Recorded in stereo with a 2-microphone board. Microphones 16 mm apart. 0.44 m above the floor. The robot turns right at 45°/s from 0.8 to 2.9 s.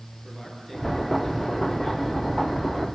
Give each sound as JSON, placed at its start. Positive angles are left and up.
{"t": 0.2, "sound": "a man speaking", "azimuth_deg": -5, "distance_m": 6.0}